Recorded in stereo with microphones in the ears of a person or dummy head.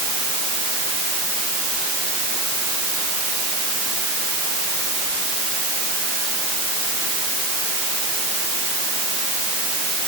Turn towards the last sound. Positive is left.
No sound to turn to.